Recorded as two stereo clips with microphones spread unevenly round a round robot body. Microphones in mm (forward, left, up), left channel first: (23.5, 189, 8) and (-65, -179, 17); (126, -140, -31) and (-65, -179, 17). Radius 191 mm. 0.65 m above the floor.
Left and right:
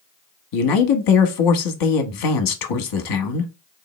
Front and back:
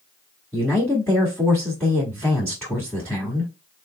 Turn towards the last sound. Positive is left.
turn(degrees=85)